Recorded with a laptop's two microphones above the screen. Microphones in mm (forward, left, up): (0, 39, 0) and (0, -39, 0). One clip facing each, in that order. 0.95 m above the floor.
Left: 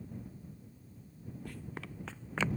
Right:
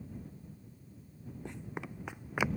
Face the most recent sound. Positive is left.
turn(degrees=-15)  # may be behind; listen again after turning